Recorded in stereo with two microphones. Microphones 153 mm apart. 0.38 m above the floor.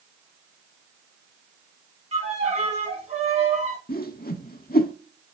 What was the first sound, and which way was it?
A violin, 45° right (ahead or behind).